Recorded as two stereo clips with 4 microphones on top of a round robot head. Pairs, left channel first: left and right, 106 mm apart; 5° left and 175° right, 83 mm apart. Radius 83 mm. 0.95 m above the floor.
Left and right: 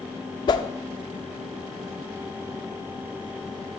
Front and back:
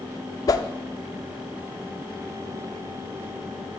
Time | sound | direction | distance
0.5 | a whoosh | 45° left | 0.8 m